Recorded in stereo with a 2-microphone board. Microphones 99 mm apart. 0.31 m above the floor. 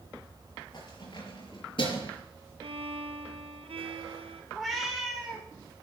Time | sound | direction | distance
0.7 | keys jangling | 50° left (ahead or behind) | 5 m
2.6 | a violin | 85° right | 1.2 m
4.5 | a cat meowing | centre (ahead or behind) | 2.5 m